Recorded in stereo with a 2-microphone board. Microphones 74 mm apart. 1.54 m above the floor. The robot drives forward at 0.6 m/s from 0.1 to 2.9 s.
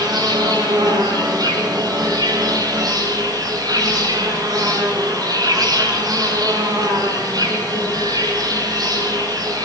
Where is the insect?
75° right (ahead or behind), 9 m; by 9.7 s 65° right (ahead or behind), 9.5 m.